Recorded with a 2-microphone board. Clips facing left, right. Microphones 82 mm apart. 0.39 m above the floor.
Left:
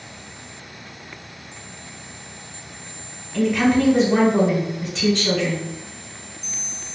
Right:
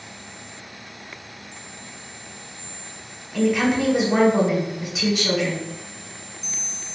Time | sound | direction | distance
3.3 | a woman speaking | 10° right (ahead or behind) | 1.1 m